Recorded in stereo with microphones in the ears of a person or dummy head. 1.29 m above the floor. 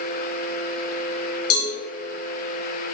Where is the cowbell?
85° left, 3.5 m.